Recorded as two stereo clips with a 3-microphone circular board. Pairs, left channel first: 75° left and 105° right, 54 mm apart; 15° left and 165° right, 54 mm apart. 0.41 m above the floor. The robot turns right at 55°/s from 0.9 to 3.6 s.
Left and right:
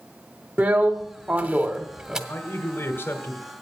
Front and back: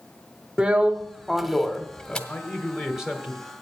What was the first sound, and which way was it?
A drill, 105° right.